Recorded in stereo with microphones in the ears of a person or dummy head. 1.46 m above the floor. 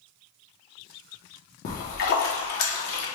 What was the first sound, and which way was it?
A splash, 60° left (ahead or behind).